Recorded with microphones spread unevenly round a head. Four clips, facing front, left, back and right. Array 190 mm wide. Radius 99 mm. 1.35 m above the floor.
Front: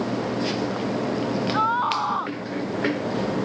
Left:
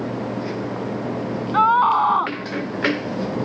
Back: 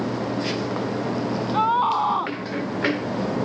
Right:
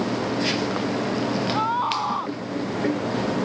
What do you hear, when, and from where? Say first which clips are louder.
1.5 s a scream: left 13 dB, back 5 dB; 130° left